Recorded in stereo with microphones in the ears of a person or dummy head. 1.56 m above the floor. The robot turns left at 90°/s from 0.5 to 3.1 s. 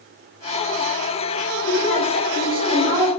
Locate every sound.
1.6 s a woman speaking: 105° left, 3.5 m; by 3.1 s 25° right, 3.5 m